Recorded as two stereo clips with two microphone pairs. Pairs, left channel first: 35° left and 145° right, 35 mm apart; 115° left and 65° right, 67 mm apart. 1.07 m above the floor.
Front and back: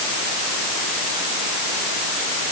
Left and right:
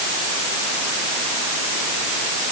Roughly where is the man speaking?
I don't hear a man speaking.